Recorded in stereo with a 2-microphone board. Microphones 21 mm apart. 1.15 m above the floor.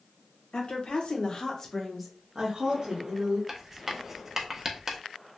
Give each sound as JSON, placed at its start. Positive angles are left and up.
{"t": 0.5, "sound": "a woman speaking", "side_deg": 55, "distance_m": 1.0}
{"t": 3.5, "sound": "writing", "side_deg": -10, "distance_m": 0.5}